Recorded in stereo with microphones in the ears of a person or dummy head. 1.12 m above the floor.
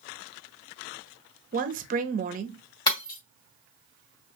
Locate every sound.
1.5 s a woman speaking: 35° right (ahead or behind), 0.9 m
2.9 s breaking glass: 20° left (ahead or behind), 2.5 m